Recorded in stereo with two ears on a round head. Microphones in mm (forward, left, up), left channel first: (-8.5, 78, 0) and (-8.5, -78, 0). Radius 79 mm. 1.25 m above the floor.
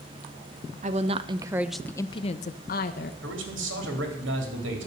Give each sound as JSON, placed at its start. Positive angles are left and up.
{"t": 0.8, "sound": "a woman speaking", "side_deg": -45, "distance_m": 0.9}
{"t": 3.2, "sound": "a man speaking", "side_deg": -85, "distance_m": 3.0}